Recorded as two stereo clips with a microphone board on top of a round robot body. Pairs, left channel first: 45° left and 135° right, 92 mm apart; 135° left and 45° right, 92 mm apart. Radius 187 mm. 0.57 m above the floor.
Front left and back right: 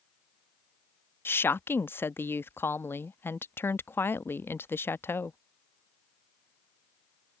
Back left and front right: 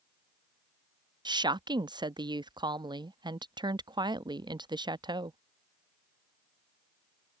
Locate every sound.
1.2 s a woman speaking: 20° right